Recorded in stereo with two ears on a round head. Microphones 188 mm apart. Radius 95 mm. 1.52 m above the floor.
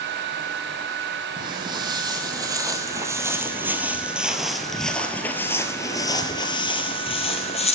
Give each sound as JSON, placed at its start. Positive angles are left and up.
{"t": 1.4, "sound": "footsteps", "side_deg": -20, "distance_m": 2.5}